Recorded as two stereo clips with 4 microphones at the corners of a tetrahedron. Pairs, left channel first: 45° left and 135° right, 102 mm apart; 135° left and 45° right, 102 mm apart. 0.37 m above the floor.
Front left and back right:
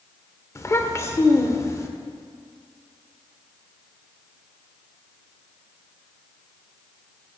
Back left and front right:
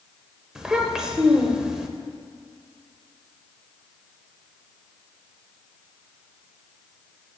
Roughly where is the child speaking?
Ahead left.